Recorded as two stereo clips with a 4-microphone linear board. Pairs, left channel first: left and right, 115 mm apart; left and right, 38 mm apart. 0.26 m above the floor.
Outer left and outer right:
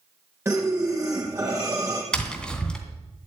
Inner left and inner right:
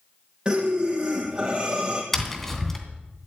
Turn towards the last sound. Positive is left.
turn(degrees=10)  # may be behind; listen again after turning